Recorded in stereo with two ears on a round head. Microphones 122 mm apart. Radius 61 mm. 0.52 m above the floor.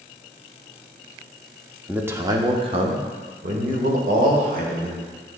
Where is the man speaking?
10° right (ahead or behind), 0.7 m; by 5.0 s 75° right (ahead or behind), 2 m.